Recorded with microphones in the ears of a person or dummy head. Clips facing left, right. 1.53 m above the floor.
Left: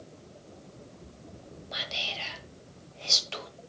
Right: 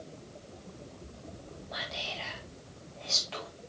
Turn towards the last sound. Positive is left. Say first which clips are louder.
# even
turn(degrees=40)  # may be behind; listen again after turning